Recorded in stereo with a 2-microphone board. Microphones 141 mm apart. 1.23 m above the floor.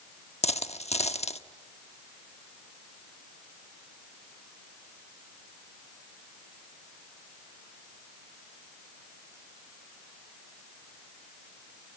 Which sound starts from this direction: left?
A dropped coin, at 0.4 s.